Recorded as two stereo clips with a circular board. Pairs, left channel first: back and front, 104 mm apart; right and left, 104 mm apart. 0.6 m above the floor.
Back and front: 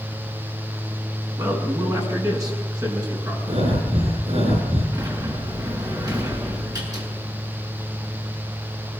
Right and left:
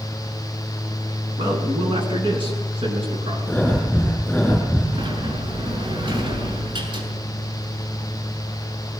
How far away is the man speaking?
About 6.5 m.